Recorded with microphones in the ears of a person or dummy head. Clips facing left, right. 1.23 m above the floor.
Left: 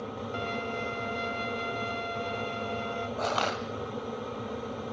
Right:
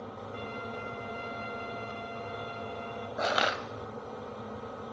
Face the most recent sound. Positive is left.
turn(degrees=-15)  # may be behind; listen again after turning